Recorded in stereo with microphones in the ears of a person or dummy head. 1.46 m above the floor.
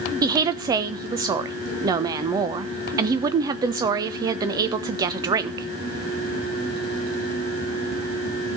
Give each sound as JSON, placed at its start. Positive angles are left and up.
{"t": 0.2, "sound": "a woman speaking", "side_deg": -25, "distance_m": 0.9}